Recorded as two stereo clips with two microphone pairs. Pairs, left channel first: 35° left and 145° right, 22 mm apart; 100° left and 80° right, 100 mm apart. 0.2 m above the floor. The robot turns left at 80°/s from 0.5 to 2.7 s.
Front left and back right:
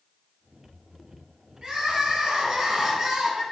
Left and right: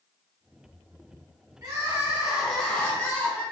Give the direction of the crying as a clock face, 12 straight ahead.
4 o'clock.